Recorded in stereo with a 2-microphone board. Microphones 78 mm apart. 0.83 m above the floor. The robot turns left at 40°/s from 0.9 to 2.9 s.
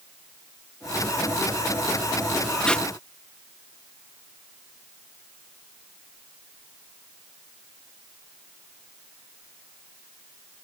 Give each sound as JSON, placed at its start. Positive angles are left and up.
{"t": 2.6, "sound": "tape being pulled", "side_deg": 10}